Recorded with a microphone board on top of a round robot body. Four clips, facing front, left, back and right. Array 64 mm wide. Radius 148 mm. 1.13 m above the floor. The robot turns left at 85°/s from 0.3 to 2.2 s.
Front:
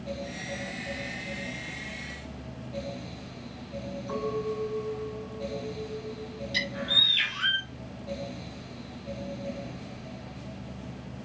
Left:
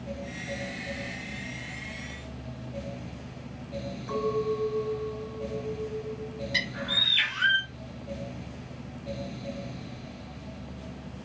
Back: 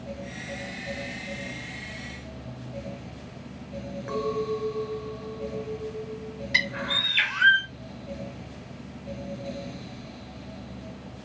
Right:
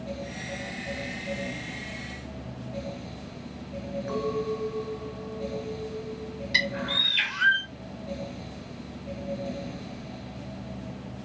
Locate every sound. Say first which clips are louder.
4.1 s a clink: left 2 dB, back 3 dB; 165° right, 3.5 m
6.5 s a bird: right 5 dB, back 4 dB; 170° right, 2 m